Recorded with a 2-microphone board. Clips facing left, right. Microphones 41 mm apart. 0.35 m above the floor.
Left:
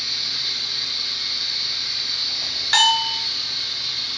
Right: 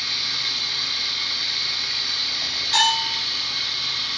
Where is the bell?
60° left (ahead or behind), 1.3 m.